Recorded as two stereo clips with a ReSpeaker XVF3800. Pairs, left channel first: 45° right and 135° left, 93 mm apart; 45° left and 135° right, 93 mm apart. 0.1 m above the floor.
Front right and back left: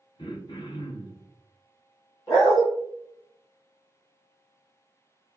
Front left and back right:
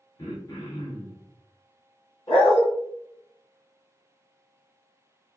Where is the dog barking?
10° left, 2 m.